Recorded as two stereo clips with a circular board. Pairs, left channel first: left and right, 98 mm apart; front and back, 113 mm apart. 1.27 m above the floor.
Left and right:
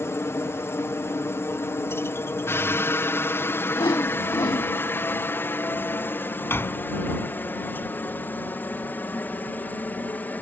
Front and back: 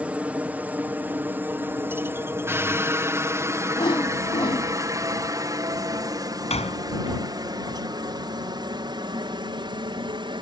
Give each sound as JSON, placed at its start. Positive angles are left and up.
{"t": 0.0, "sound": "a helicopter", "azimuth_deg": 115}
{"t": 3.8, "sound": "a whoosh", "azimuth_deg": 45}
{"t": 6.5, "sound": "a door slam", "azimuth_deg": 25}